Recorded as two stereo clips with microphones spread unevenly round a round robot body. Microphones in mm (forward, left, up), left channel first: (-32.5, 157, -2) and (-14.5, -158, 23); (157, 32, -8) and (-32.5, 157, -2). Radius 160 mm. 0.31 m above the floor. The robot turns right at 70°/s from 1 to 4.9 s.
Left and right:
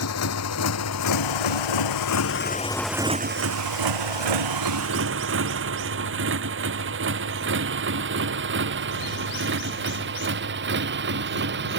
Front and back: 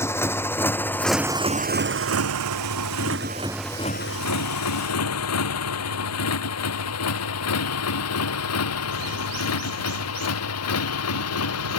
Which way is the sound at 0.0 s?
45° left.